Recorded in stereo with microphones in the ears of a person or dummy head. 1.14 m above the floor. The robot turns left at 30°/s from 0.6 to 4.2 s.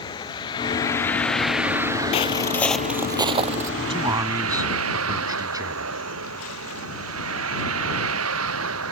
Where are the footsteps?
35° left (ahead or behind); by 3.7 s 45° right (ahead or behind).